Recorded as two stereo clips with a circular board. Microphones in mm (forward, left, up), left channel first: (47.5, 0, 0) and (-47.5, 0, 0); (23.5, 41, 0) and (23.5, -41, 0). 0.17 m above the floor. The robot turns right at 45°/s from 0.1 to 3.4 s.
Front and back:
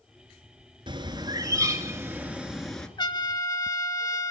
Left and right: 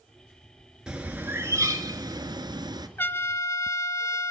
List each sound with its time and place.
0.9 s a bird: 170° right, 2 m; by 2.9 s 80° right, 2 m
3.0 s a trumpet: 25° left, 0.8 m; by 4.3 s 45° left, 0.8 m